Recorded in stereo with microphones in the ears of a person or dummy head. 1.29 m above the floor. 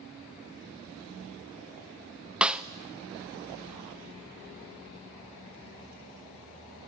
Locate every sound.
2.4 s a snare drum: centre (ahead or behind), 0.5 m